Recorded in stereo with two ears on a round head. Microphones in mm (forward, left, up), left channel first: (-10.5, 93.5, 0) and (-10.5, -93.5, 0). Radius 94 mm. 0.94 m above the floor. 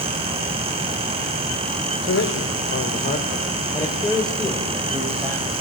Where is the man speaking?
65° left (ahead or behind), 3 m; by 5.5 s 20° right (ahead or behind), 4 m.